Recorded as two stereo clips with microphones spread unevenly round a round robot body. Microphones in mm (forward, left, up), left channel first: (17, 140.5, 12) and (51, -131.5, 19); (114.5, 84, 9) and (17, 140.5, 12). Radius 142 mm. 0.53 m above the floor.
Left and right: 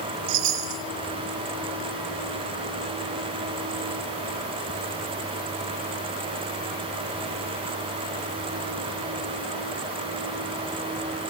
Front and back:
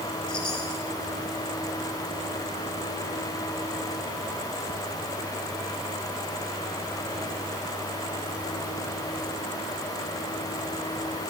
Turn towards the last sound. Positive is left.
turn(degrees=-90)